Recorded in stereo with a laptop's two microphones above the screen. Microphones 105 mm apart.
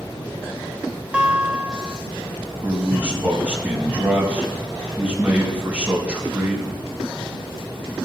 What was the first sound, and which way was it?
A guitar, 10° right (ahead or behind).